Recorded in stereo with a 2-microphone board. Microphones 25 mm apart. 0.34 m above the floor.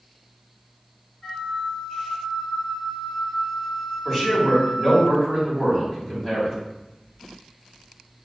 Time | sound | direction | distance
1.2 | a flute | 25° left (ahead or behind) | 1.2 m
4.0 | a man speaking | 25° left (ahead or behind) | 1.2 m